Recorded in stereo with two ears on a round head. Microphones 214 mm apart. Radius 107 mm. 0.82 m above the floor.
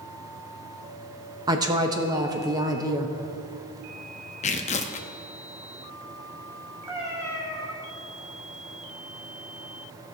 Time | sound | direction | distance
1.5 | a woman speaking | 15° right (ahead or behind) | 0.7 m
4.4 | tearing paper | 30° left (ahead or behind) | 0.6 m
6.9 | a cat meowing | 10° right (ahead or behind) | 2.5 m